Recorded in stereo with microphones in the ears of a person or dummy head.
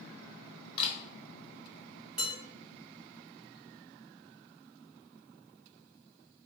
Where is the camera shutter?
25° left (ahead or behind), 0.9 m.